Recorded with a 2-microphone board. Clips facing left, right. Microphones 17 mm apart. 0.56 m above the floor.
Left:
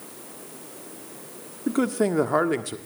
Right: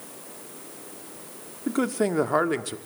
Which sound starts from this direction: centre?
A man speaking, at 1.7 s.